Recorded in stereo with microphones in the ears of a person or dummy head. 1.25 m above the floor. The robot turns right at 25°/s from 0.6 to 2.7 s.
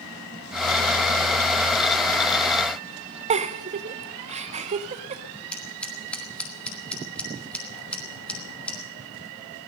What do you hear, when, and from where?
3.3 s a giggle: 30° right (ahead or behind), 0.6 m
5.5 s scissors: 10° left (ahead or behind), 1.2 m